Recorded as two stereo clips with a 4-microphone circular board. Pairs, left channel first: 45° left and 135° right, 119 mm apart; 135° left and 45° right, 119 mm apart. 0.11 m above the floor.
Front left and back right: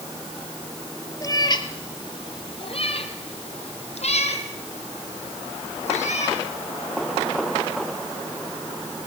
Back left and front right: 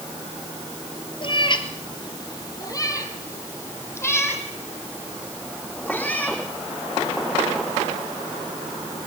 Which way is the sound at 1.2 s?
100° left.